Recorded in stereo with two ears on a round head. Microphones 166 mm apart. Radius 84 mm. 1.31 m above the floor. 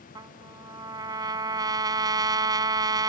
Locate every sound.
0.1 s a trumpet: 20° right (ahead or behind)